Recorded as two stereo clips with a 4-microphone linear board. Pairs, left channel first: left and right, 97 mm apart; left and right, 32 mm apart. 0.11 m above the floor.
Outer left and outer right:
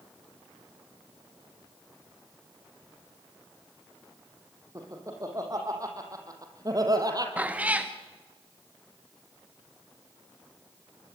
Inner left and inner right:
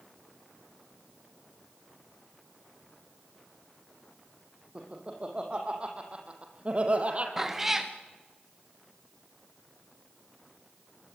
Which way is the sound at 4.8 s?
35° right (ahead or behind).